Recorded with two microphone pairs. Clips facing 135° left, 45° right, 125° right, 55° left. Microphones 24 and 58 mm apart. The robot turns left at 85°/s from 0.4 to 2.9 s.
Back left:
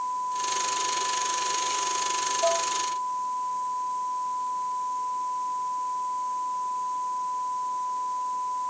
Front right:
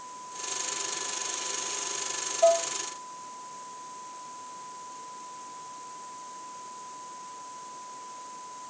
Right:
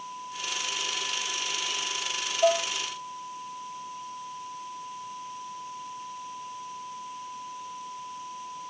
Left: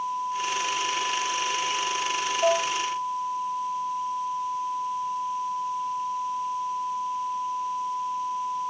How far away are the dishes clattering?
About 3.5 m.